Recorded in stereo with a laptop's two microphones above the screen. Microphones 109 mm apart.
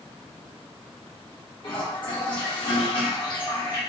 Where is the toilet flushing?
45° left (ahead or behind), 0.9 m.